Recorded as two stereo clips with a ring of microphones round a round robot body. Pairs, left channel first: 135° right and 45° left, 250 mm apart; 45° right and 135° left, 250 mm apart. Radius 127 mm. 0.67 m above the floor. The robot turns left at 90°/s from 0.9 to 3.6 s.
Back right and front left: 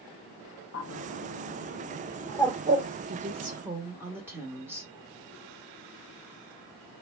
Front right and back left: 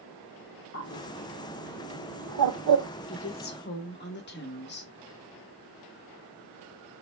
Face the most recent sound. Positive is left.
turn(degrees=-30)